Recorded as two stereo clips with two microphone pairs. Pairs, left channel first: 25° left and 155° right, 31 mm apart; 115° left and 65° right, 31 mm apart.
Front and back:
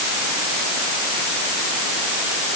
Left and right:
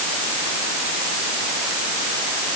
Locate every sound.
Only background noise.